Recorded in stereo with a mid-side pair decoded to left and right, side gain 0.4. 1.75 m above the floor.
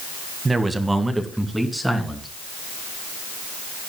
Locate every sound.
0.5 s a man speaking: 30° right, 1.7 m; by 2.3 s straight ahead, 3 m